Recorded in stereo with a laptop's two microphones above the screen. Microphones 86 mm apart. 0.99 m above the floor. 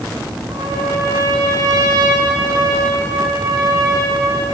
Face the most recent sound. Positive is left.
turn(degrees=-50)  # may be behind; listen again after turning